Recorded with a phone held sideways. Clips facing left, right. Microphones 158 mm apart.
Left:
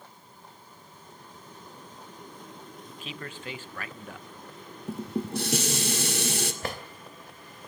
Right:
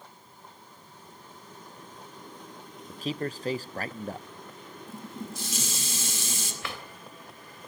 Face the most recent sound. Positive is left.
turn(degrees=45)  # may be behind; listen again after turning